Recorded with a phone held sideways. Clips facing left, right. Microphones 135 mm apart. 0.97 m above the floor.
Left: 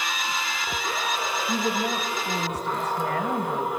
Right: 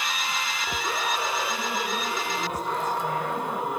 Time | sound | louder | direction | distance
1.5 | a woman speaking | left 4 dB | 85° left | 4 m